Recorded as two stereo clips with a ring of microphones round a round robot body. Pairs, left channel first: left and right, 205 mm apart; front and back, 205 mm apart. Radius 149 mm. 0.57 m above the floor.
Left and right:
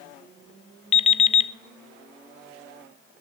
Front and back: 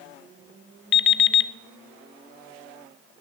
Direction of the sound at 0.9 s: 30° left.